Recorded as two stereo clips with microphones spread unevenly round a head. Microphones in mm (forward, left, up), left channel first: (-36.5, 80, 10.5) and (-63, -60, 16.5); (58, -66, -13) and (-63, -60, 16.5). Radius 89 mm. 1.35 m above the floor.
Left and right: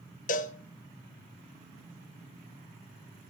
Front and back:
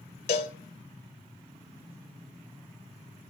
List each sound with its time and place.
0.3 s a cowbell: 50° left, 0.8 m